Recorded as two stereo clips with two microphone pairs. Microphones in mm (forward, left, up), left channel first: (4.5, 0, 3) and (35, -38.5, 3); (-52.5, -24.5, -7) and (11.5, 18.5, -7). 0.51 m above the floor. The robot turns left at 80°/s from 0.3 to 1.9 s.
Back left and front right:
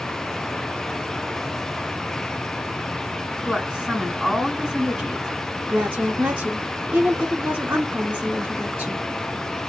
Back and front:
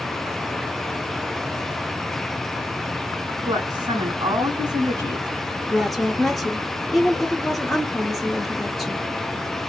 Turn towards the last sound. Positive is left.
turn(degrees=-60)